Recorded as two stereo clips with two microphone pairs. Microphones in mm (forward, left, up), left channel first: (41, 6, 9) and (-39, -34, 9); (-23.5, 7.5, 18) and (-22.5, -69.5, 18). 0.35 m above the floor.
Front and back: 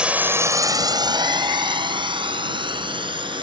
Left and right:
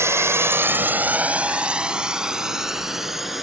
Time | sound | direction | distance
0.0 | a drone | 80° right | ?